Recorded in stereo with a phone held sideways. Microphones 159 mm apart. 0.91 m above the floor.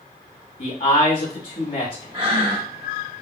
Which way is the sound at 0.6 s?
65° left (ahead or behind).